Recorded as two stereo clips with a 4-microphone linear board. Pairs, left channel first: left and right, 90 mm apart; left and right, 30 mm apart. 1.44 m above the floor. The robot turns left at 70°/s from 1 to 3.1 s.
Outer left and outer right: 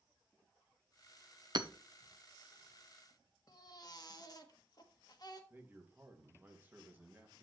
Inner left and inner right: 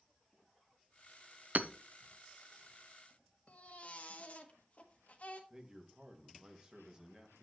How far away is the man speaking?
About 1.9 m.